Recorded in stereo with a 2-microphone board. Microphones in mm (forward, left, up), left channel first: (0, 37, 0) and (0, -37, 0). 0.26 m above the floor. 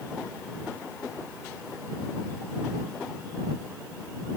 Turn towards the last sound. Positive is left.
No sound to turn to.